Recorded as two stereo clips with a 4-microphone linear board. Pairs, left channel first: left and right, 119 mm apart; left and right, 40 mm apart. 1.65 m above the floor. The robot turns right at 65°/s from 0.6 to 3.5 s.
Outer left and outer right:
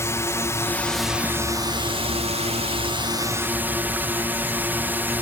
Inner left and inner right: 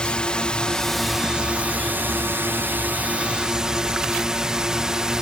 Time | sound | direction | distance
0.0 | a drone | 155° left | ?